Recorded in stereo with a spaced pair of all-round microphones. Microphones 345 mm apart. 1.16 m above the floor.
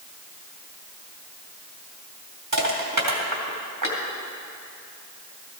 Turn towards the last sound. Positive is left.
turn(degrees=-65)  # may be behind; listen again after turning